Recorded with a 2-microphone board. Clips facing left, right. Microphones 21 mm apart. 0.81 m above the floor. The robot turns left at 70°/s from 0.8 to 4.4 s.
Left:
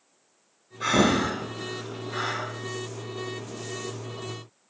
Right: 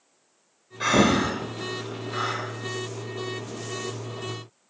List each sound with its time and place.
0.8 s breathing: 35° right (ahead or behind), 0.8 m; by 2.5 s 30° left (ahead or behind), 0.8 m